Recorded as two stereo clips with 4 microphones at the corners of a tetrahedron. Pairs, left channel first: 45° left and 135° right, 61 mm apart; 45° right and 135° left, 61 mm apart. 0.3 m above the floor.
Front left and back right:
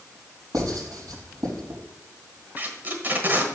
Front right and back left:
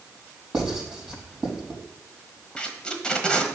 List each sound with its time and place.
0.5 s writing: 145° right, 4.5 m
2.6 s tape being pulled: 105° right, 1.1 m